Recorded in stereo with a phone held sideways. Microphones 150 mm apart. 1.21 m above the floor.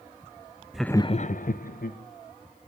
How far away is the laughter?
About 0.6 m.